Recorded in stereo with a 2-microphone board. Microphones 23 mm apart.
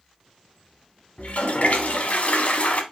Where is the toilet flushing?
70° left (ahead or behind), 0.9 m.